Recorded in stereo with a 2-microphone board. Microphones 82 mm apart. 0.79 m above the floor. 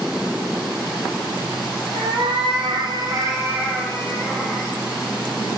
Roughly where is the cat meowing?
Right.